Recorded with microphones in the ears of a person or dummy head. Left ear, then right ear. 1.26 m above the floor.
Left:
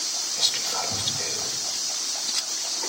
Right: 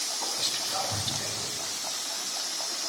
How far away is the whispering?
About 5 m.